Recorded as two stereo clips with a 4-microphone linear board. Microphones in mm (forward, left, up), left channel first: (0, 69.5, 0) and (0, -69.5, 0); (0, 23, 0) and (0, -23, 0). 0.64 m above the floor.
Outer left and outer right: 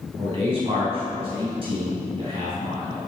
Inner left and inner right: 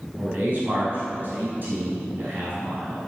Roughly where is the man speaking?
Right.